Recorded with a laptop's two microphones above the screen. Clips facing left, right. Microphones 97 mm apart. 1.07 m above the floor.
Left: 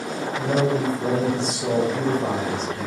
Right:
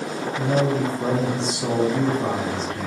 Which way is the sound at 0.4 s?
60° right (ahead or behind).